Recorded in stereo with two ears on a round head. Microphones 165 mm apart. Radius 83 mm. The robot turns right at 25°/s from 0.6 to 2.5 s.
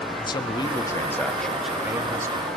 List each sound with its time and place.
0.2 s a man speaking: 155° left, 1.2 m; by 2.5 s 160° right, 1.2 m